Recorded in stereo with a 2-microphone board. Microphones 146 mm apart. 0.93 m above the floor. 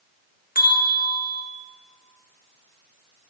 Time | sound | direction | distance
0.6 | a bell | 80° left | 0.6 m